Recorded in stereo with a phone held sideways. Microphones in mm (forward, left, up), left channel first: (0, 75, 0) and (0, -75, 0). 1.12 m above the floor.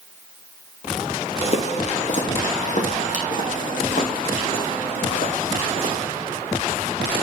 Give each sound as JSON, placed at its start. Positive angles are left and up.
{"t": 1.4, "sound": "footsteps", "side_deg": 45, "distance_m": 1.8}